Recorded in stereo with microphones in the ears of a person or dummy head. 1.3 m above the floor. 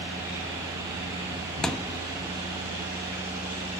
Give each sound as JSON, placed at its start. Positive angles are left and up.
{"t": 1.6, "sound": "a thud", "side_deg": 5, "distance_m": 0.6}